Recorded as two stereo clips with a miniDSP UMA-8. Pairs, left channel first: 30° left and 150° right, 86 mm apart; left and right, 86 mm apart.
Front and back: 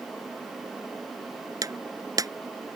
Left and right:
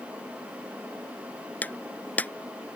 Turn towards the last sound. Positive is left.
turn(degrees=165)